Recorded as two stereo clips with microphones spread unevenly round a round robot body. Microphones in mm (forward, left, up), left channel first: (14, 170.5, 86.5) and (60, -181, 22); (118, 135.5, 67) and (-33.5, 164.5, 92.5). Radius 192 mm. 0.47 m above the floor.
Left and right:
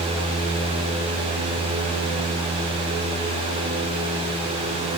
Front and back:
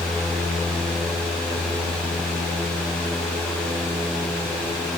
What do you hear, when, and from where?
Only background noise.